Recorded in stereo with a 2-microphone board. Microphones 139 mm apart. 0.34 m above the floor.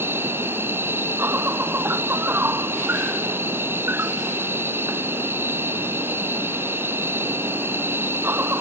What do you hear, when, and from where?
0.0 s an insect: 15° right (ahead or behind)